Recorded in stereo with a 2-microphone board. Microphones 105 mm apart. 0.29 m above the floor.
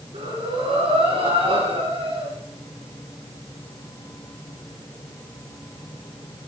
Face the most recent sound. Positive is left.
turn(degrees=-75)  # may be behind; listen again after turning